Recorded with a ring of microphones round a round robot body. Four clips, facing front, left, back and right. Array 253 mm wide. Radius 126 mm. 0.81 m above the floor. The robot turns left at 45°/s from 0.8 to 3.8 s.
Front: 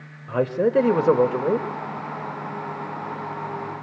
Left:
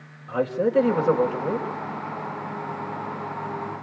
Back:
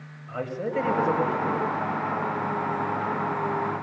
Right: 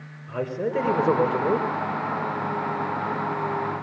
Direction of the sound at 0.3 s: 10° left.